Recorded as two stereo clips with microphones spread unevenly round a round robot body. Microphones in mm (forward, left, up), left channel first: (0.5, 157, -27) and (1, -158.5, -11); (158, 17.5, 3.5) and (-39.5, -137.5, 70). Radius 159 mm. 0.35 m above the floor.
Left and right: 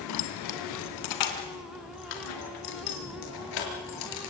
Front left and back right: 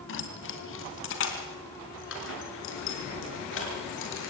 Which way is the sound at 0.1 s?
60° left.